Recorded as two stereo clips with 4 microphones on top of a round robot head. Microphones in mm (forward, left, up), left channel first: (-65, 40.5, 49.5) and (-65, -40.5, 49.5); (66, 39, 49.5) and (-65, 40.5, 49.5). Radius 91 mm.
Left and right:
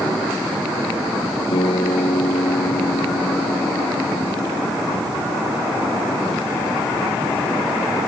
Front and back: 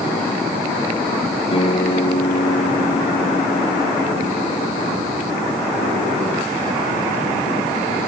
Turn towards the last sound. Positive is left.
turn(degrees=45)